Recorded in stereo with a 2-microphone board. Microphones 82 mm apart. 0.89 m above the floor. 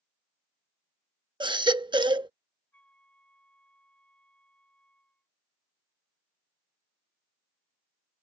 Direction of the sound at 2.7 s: 15° left (ahead or behind).